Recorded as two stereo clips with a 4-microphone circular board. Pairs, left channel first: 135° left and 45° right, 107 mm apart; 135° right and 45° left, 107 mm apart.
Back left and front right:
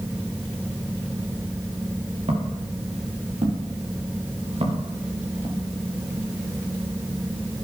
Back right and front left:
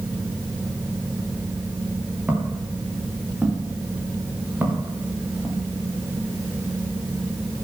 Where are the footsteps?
30° right, 7.5 m; by 5.6 s 25° right, 5.5 m.